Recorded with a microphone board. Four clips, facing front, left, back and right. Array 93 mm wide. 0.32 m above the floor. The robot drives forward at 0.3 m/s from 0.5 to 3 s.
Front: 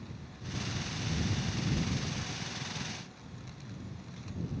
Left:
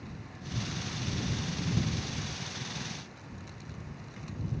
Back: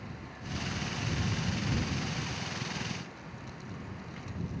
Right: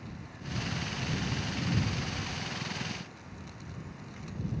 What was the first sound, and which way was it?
Only background noise.